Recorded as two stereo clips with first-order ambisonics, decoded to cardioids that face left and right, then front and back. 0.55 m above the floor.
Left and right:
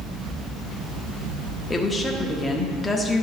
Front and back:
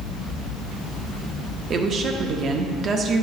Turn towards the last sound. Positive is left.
turn(degrees=160)